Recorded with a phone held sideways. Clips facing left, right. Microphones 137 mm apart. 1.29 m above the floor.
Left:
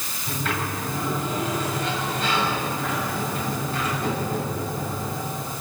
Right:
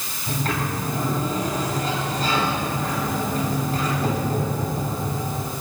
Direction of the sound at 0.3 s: 40° right (ahead or behind).